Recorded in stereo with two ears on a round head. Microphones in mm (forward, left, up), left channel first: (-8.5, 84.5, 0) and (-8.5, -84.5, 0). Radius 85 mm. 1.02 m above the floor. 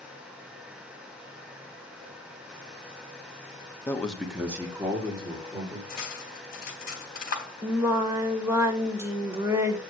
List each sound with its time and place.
3.9 s a man speaking: 15° left (ahead or behind), 1.2 m; by 5.8 s 25° right (ahead or behind), 3 m
5.9 s cutlery clinking: 50° left (ahead or behind), 3.5 m
7.6 s singing: 15° right (ahead or behind), 1.5 m